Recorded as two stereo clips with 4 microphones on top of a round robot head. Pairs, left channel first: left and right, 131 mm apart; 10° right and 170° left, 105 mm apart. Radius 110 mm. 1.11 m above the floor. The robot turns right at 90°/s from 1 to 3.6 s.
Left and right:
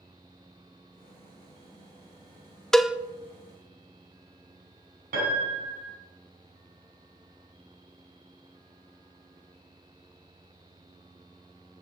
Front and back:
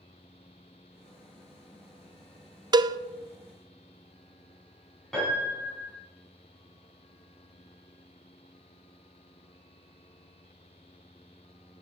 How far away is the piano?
About 4 m.